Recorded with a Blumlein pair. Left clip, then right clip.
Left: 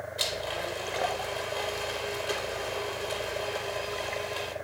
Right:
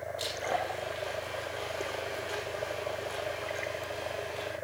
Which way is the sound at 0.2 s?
65° left.